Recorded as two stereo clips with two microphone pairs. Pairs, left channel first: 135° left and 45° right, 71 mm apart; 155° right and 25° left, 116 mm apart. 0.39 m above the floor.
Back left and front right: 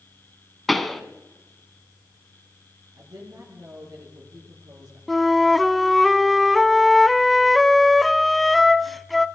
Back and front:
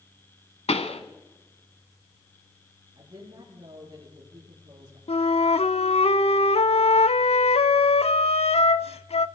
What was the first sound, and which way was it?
A pop, 140° right.